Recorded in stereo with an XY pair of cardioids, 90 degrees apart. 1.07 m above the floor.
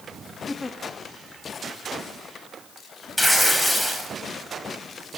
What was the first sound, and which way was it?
A giggle, 25° left.